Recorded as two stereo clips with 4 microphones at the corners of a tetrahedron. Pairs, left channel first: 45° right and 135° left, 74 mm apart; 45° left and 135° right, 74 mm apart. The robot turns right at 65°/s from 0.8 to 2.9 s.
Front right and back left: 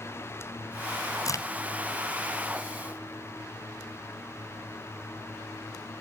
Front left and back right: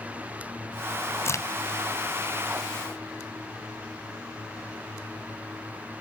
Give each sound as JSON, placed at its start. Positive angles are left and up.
{"t": 1.2, "sound": "a crack", "azimuth_deg": -10, "distance_m": 1.6}